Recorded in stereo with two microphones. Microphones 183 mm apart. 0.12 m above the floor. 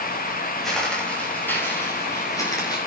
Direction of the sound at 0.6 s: Centre (ahead or behind).